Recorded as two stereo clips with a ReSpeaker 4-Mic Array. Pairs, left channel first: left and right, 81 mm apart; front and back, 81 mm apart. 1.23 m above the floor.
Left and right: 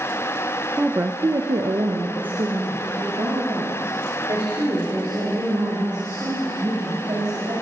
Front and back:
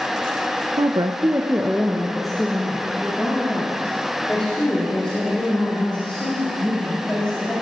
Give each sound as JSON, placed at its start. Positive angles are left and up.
{"t": 0.8, "sound": "a woman speaking", "azimuth_deg": -165, "distance_m": 0.6}